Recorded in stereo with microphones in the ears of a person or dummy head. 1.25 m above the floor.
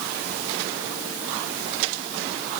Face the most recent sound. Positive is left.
No sound to turn to.